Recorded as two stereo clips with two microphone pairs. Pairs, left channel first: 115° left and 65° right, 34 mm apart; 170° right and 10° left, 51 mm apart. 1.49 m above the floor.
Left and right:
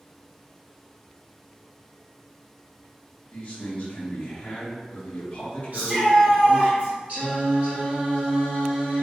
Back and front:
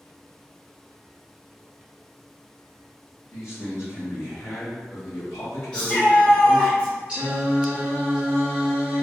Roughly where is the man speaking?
Behind.